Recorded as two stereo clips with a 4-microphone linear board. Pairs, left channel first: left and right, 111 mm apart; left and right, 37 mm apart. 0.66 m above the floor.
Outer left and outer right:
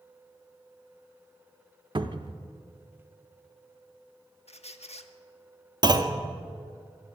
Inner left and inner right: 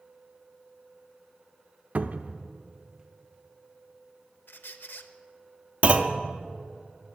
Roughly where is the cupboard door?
Right.